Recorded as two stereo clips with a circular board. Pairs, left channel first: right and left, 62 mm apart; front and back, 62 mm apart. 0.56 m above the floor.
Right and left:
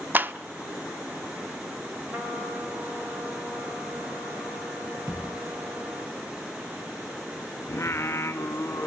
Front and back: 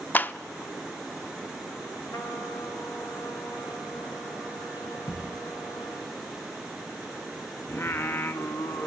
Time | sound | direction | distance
0.1 | a clap | 50° left | 0.6 m
2.1 | a trumpet | 35° left | 3 m
5.1 | a thud | 30° left | 4 m
7.7 | singing | 45° right | 0.9 m